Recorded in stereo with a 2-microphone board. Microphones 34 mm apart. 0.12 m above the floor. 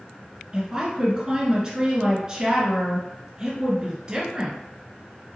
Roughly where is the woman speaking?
Centre.